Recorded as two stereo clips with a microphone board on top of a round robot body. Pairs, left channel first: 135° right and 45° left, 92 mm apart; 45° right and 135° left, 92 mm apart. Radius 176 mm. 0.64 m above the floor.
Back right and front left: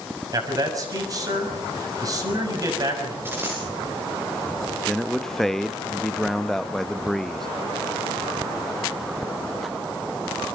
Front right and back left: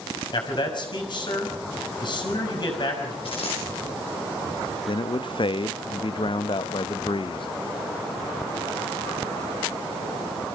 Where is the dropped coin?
20° right, 8.5 m.